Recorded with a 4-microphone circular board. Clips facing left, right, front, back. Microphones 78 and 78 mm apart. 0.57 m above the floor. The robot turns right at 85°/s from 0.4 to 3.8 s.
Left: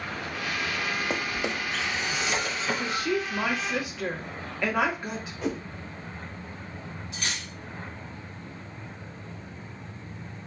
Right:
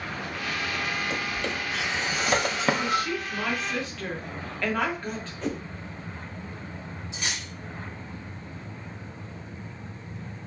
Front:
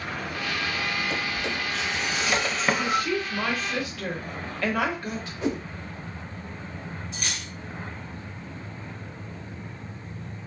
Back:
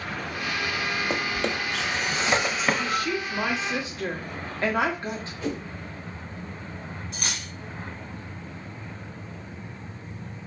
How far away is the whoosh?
About 1.0 m.